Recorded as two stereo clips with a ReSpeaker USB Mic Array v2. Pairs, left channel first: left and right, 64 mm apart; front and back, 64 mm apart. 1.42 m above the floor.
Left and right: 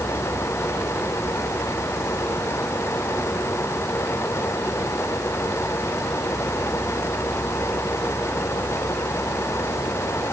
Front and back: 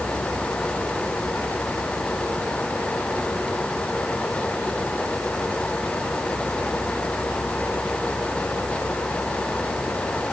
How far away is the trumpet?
No trumpet in this recording.